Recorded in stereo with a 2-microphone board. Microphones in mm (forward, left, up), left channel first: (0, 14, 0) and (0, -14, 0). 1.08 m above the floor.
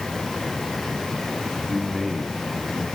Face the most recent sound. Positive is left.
turn(degrees=-5)  # may be behind; listen again after turning